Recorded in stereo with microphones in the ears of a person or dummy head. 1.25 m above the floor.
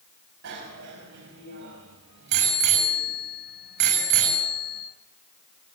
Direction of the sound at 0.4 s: 65° right (ahead or behind).